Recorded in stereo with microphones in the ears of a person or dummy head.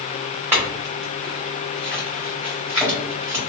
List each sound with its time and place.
0.5 s a clink: 10° right (ahead or behind), 1.5 m